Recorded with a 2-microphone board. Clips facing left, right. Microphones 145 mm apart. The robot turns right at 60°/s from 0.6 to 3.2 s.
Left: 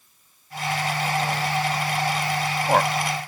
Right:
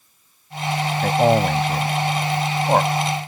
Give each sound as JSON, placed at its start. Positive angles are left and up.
{"t": 1.0, "sound": "a man speaking", "side_deg": -65}